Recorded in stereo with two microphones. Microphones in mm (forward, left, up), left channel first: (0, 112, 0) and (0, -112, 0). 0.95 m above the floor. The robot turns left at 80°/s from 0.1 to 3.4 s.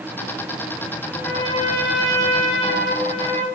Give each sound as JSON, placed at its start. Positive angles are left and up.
{"t": 1.1, "sound": "a trumpet", "azimuth_deg": -170, "distance_m": 1.2}